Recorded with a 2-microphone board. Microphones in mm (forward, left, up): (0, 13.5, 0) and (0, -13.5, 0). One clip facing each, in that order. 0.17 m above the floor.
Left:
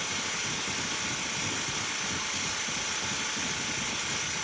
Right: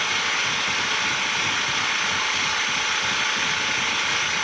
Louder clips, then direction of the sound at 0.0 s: Right 10 dB; 40° right (ahead or behind).